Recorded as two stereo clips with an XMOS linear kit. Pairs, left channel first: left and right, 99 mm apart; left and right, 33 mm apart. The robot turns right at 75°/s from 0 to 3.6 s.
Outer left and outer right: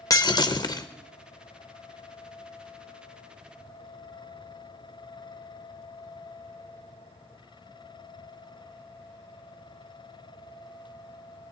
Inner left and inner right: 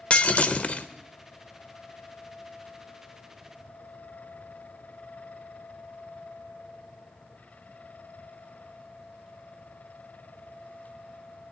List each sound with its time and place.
0.1 s breaking glass: 60° left, 0.5 m; by 0.9 s 115° left, 0.5 m